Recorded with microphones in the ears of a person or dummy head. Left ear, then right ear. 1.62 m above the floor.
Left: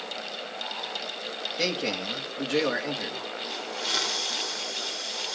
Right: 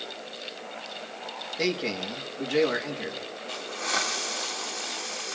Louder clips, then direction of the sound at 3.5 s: Even; 45° right (ahead or behind).